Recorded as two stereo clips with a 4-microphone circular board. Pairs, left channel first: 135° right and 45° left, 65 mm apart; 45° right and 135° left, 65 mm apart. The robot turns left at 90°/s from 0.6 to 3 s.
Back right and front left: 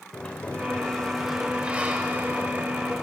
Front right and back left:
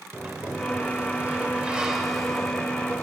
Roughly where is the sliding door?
Behind.